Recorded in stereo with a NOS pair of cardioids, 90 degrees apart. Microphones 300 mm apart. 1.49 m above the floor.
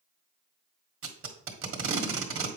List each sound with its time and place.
1.0 s tape being pulled: 45° right, 1.6 m